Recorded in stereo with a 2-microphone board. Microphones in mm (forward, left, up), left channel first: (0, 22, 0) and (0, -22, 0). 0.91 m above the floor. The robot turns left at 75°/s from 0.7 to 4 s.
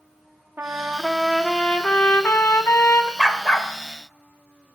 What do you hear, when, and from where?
0.6 s a trumpet: 130° right, 1.1 m; by 3.1 s 50° left, 1.1 m
3.2 s a dog barking: 165° left, 1.0 m; by 3.7 s 130° left, 1.0 m